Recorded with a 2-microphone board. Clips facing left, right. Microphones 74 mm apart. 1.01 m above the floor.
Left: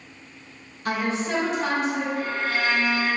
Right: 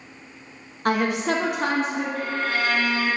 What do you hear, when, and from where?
0.8 s a woman speaking: 50° right (ahead or behind), 0.8 m; by 2.0 s 35° right (ahead or behind), 1.1 m
2.1 s a violin: 75° right (ahead or behind), 1.5 m